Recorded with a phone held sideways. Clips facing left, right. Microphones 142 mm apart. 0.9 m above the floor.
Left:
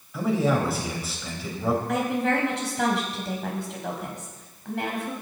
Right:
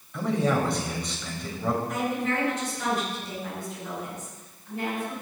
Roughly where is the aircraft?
No aircraft in this recording.